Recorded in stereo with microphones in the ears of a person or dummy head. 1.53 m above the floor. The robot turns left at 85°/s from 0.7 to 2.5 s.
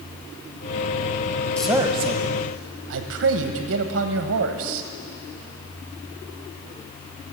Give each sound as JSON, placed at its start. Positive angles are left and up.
{"t": 1.6, "sound": "a man speaking", "azimuth_deg": 5, "distance_m": 1.2}